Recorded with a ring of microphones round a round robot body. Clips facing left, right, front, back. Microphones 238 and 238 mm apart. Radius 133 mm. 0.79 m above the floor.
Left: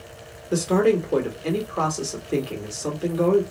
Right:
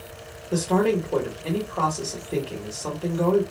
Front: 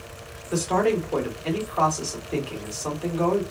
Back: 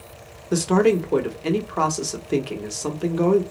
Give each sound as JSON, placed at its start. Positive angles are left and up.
{"t": 0.5, "sound": "a man speaking", "azimuth_deg": 150, "distance_m": 0.9}